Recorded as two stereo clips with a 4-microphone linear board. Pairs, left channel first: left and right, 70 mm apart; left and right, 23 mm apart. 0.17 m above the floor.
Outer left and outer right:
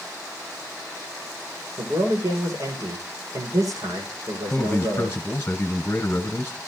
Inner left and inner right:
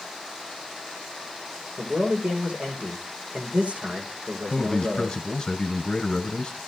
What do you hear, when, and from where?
1.8 s a man speaking: 55° right (ahead or behind), 8 m
4.5 s a man speaking: 25° left (ahead or behind), 1.2 m